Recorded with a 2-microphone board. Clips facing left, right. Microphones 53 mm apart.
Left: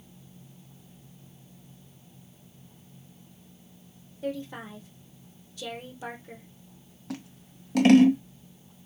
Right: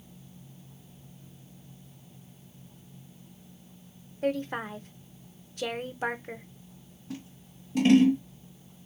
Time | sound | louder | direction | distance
4.2 | a woman speaking | right 4 dB | 50° right (ahead or behind) | 0.6 m
7.1 | scissors | left 2 dB | 75° left (ahead or behind) | 0.7 m